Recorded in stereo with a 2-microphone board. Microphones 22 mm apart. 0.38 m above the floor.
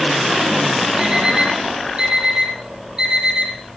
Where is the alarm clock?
30° right (ahead or behind), 8 m.